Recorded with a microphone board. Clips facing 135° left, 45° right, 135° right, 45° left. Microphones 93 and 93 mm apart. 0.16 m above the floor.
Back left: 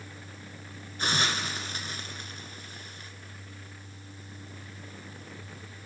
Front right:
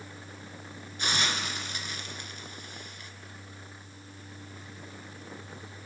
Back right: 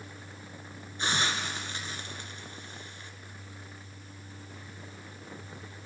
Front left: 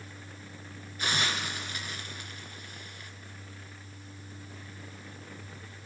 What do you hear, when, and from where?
1.0 s a hiss: 175° left, 2.5 m